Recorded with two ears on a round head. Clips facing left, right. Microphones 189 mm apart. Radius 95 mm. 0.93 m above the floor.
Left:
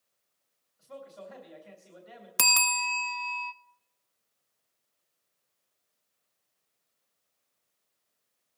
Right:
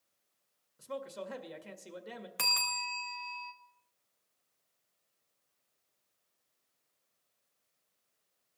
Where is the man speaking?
65° right (ahead or behind), 2.0 m.